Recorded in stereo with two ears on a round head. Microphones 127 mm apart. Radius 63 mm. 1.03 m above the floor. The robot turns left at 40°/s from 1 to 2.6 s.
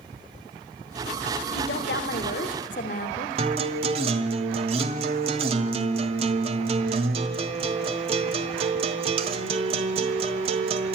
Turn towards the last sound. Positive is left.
turn(degrees=-40)  # may be behind; listen again after turning